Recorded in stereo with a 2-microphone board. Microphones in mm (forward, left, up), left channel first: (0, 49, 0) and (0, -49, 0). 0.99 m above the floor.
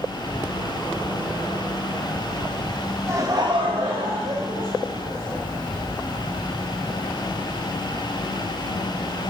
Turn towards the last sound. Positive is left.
turn(degrees=-35)  # may be behind; listen again after turning